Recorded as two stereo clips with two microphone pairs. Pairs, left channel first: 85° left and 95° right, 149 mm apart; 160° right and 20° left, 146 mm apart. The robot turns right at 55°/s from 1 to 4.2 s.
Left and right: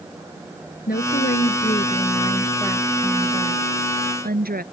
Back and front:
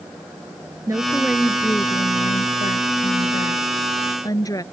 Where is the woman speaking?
85° left; by 4.6 s 95° right.